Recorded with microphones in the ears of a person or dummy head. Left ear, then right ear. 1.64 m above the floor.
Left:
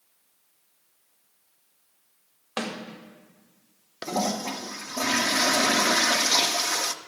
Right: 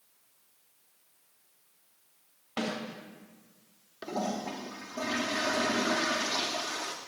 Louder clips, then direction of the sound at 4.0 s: Left 6 dB; 75° left (ahead or behind).